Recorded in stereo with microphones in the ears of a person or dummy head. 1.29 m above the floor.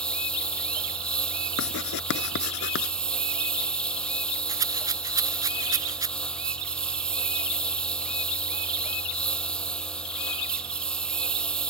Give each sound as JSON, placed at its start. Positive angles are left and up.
{"t": 0.0, "sound": "a lawn mower", "side_deg": 10}
{"t": 1.6, "sound": "writing", "side_deg": 65}
{"t": 4.5, "sound": "a rattle", "side_deg": -15}